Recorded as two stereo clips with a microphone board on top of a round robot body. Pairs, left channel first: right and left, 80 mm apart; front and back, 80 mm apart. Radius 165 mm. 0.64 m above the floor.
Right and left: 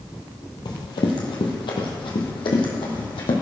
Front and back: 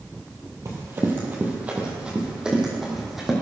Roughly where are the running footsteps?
Behind right.